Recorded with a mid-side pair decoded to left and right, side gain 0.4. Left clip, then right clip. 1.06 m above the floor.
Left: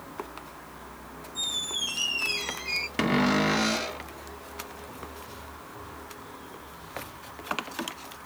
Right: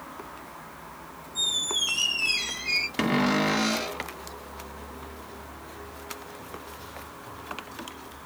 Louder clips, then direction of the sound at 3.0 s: Left 4 dB; 10° left.